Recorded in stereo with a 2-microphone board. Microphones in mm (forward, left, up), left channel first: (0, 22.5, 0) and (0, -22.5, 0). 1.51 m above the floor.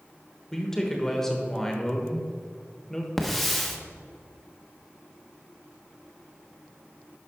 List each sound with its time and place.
0.5 s a man speaking: 10° left (ahead or behind), 1.2 m
3.2 s a hiss: centre (ahead or behind), 0.9 m